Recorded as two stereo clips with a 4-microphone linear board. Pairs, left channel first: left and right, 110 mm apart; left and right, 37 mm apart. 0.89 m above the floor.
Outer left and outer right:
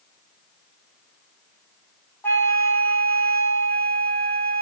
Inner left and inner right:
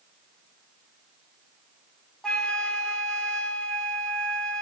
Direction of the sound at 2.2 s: 20° left (ahead or behind).